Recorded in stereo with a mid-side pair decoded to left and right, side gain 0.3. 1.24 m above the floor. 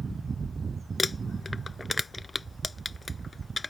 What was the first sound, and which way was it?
Crumpling, 30° left.